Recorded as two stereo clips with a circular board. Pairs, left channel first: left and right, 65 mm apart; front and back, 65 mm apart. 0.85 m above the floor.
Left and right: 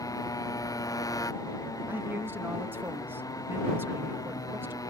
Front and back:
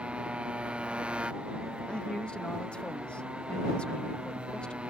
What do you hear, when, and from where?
0.0 s a motorcycle: 110° left
1.9 s a man speaking: 65° right